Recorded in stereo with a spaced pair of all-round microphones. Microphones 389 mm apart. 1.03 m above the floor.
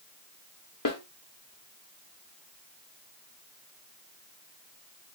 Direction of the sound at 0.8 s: 55° left (ahead or behind).